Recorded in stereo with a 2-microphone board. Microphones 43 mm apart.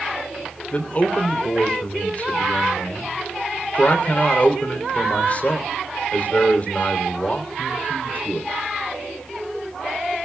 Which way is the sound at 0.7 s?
35° left (ahead or behind).